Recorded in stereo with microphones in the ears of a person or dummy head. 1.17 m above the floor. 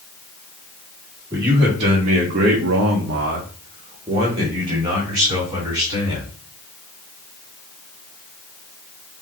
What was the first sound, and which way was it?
A man speaking, 20° right (ahead or behind).